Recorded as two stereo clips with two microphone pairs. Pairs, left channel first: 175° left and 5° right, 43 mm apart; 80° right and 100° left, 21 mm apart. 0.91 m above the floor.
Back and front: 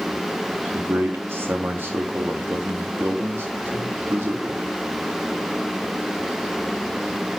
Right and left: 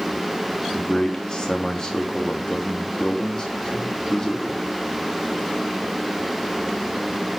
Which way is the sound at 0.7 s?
20° right.